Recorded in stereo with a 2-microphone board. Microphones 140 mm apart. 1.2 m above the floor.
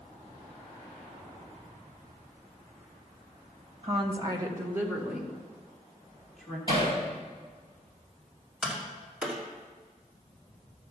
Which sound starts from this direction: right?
A woman speaking, at 3.8 s.